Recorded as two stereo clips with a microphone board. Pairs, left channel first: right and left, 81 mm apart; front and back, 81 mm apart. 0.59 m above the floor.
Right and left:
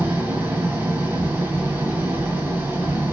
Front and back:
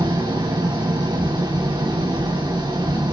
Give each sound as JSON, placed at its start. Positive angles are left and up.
{"t": 0.0, "sound": "an engine running", "azimuth_deg": 155, "distance_m": 3.5}